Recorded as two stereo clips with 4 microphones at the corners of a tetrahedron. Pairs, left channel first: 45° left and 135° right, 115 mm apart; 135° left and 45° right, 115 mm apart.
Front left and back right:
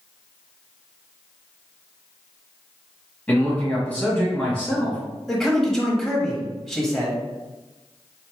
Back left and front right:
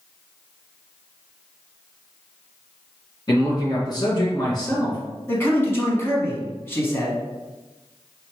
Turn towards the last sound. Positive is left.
turn(degrees=130)